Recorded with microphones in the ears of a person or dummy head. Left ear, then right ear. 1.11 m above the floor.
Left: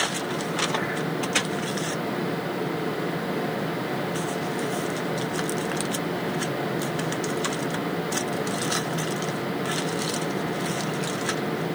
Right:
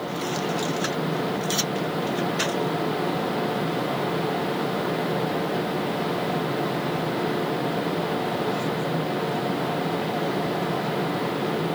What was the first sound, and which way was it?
Only background noise.